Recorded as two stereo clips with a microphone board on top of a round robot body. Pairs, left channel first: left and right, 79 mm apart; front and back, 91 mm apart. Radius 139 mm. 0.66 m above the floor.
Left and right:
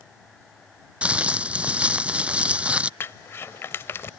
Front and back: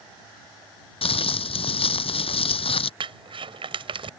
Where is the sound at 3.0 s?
155° left.